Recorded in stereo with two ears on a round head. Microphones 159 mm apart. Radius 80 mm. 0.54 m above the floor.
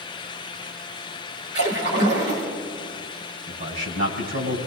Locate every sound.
1.5 s a splash: 65° right (ahead or behind), 6.5 m
3.5 s a man speaking: 65° right (ahead or behind), 4.5 m